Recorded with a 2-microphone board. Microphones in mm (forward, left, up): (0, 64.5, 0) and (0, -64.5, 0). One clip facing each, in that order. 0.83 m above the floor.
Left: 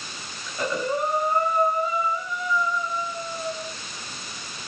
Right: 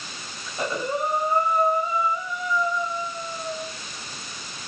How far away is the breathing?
About 3.5 m.